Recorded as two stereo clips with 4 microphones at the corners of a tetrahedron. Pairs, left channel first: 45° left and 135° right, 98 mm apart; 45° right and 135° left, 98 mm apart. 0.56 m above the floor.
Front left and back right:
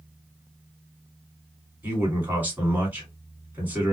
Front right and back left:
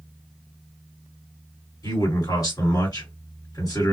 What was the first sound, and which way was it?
A man speaking, 70° right.